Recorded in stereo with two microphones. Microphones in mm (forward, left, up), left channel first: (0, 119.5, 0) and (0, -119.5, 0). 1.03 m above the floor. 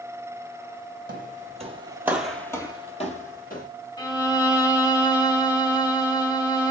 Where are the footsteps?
40° right (ahead or behind), 1.3 m; by 3.7 s 40° left (ahead or behind), 1.7 m.